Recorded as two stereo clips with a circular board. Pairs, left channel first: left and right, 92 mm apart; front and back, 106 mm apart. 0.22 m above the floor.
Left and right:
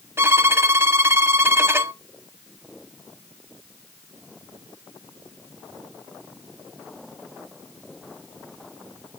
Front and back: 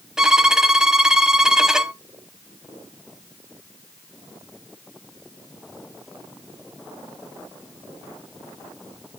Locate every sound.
0.2 s a violin: 100° right, 0.5 m